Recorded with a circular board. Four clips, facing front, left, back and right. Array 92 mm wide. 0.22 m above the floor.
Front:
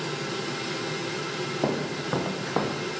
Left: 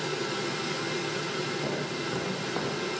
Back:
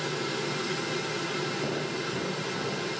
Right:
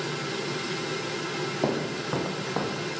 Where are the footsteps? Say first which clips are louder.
Right 4 dB, front 3 dB; 45° right, 2.5 m; by 2.9 s 10° right, 2.5 m.